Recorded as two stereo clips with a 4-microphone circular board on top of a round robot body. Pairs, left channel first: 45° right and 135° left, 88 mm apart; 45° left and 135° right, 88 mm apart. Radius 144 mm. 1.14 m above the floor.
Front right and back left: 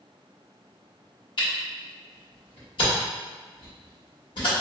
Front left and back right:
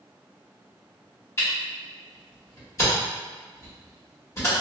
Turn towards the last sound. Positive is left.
turn(degrees=-15)